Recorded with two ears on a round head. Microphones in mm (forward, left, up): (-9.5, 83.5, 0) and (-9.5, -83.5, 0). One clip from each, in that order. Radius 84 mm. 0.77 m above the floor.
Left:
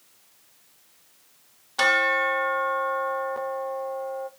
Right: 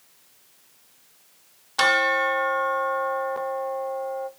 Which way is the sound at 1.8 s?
10° right (ahead or behind).